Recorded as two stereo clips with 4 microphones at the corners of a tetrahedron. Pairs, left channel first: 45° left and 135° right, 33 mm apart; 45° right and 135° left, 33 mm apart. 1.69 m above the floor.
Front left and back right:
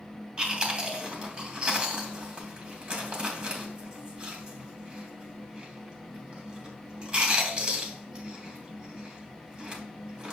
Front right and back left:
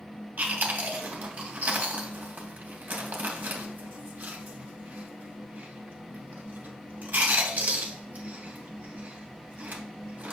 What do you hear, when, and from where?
0.4 s chewing: 165° left, 2.5 m